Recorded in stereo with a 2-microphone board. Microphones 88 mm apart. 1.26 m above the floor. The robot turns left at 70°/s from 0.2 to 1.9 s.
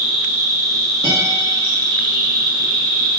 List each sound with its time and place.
0.0 s an insect: 10° right, 1.7 m; by 3.2 s 130° right, 1.7 m
1.0 s a guitar: 80° right, 2.5 m